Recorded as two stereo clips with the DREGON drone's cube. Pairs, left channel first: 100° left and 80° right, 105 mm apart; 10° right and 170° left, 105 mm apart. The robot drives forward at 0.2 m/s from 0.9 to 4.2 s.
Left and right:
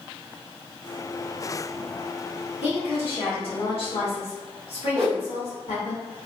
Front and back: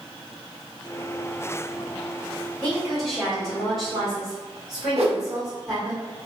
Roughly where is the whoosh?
Behind.